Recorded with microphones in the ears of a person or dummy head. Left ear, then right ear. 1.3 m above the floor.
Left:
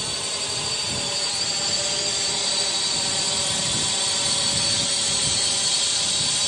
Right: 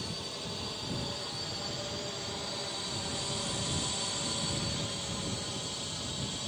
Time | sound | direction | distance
0.0 | a drone | 45° left (ahead or behind) | ?